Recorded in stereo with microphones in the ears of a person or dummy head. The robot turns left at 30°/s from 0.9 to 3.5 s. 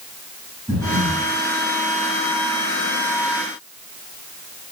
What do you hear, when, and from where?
0.7 s breathing: 10° left (ahead or behind), 2 m; by 1.3 s centre (ahead or behind), 2 m